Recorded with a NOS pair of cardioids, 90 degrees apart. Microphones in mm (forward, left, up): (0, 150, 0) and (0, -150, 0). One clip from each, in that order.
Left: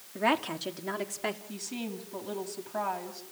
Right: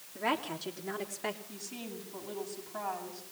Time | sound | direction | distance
0.1 | a woman speaking | 40° left | 3.5 m
1.5 | a woman speaking | 45° left | 8 m